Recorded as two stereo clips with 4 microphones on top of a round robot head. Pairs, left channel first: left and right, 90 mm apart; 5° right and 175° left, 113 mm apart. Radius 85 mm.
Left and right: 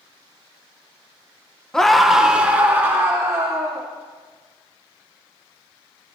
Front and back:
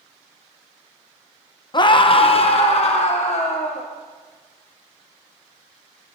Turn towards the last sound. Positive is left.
turn(degrees=-30)